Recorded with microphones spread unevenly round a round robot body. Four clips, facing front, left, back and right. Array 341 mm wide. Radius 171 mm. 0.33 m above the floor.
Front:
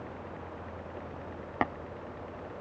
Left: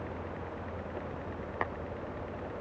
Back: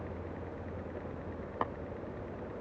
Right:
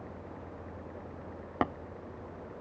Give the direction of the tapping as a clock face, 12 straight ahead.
2 o'clock.